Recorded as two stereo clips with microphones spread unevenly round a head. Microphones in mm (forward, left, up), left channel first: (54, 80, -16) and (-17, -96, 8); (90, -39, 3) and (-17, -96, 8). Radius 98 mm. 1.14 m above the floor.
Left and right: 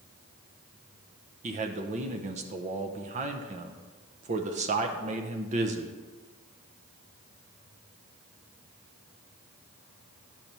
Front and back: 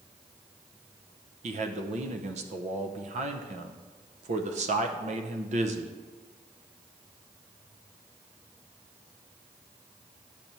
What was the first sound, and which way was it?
A man speaking, 170° right.